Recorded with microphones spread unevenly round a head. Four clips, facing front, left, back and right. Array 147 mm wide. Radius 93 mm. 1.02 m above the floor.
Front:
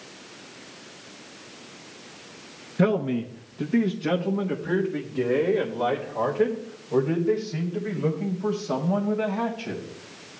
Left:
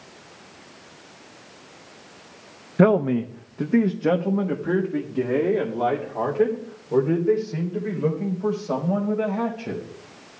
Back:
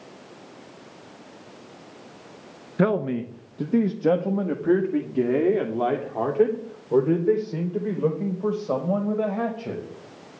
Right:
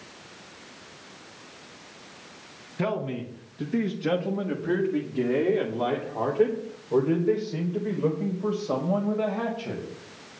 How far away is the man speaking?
About 0.7 m.